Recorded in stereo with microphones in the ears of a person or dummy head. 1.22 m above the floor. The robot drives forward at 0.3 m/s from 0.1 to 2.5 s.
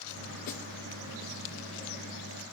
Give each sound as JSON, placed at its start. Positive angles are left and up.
{"t": 0.5, "sound": "a snare drum", "side_deg": 45, "distance_m": 1.6}